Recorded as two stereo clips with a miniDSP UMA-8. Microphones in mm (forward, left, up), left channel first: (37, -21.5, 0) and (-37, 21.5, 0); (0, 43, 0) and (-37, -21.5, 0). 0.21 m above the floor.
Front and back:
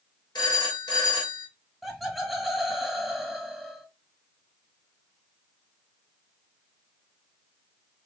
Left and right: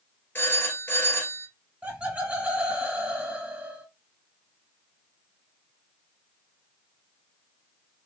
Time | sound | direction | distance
0.3 | a phone ringing | straight ahead | 2.0 m
1.8 | laughter | 125° right | 1.2 m